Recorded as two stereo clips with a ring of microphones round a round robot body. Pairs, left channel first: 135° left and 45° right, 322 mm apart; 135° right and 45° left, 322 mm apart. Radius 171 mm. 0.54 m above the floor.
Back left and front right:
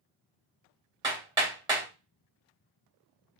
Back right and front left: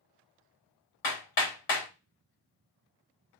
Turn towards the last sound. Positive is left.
turn(degrees=-120)